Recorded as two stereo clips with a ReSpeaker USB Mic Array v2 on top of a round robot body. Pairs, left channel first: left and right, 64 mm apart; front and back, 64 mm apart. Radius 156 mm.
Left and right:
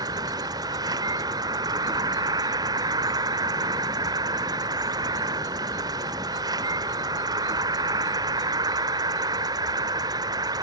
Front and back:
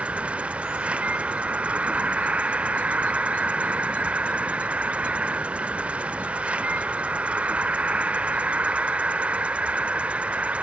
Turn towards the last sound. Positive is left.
turn(degrees=-105)